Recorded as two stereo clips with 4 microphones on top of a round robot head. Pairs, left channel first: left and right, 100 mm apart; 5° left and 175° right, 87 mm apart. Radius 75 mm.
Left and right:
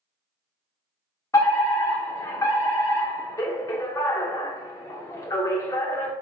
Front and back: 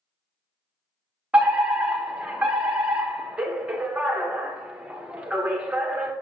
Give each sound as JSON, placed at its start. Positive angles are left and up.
{"t": 1.3, "sound": "a fire alarm", "azimuth_deg": 120, "distance_m": 1.3}